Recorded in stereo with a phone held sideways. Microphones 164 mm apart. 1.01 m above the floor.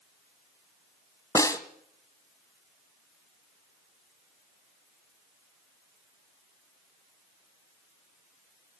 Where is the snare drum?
20° left (ahead or behind), 1.1 m.